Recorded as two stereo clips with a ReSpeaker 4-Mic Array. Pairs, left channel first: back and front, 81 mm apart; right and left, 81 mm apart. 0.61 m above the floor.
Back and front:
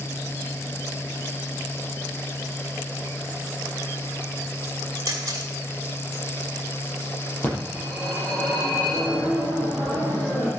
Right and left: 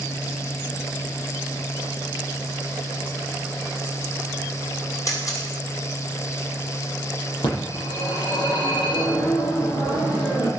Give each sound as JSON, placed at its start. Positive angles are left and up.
{"t": 5.1, "sound": "a camera shutter", "azimuth_deg": -45, "distance_m": 5.5}
{"t": 7.4, "sound": "a phone ringing", "azimuth_deg": -105, "distance_m": 9.5}